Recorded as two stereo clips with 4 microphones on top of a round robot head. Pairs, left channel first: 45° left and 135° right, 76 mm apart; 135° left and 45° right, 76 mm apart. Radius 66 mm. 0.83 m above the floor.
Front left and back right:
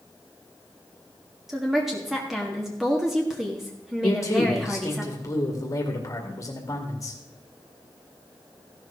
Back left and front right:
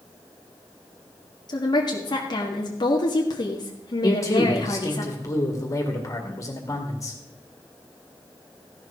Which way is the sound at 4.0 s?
90° left.